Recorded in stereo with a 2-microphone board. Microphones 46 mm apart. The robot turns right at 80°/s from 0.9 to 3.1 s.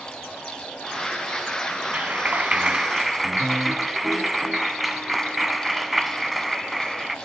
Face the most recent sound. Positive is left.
turn(degrees=-5)